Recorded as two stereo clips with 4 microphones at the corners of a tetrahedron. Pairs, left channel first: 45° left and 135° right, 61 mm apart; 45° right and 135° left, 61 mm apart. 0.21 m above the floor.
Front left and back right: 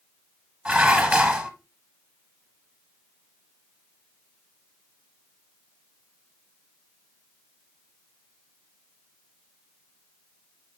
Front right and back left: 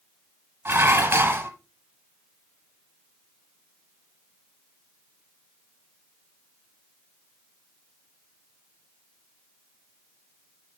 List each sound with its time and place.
0.7 s dishes clattering: 165° left, 1.0 m